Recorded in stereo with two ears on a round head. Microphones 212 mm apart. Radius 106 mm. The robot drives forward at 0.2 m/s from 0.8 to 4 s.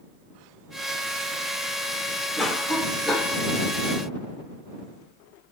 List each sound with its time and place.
2.4 s a cough: centre (ahead or behind), 0.9 m